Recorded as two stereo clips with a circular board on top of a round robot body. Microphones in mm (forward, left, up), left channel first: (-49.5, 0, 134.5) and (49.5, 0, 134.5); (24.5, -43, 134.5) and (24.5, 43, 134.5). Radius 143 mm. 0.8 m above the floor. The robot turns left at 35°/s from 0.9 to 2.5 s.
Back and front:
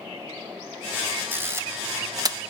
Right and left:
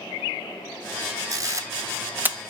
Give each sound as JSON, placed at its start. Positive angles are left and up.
{"t": 1.3, "sound": "a camera shutter", "azimuth_deg": 65, "distance_m": 0.5}